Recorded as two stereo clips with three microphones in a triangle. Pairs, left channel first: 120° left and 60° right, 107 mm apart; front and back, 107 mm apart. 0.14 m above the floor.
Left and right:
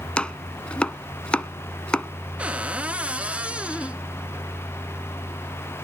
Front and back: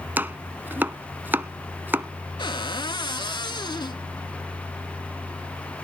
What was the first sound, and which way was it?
Chopping, 175° left.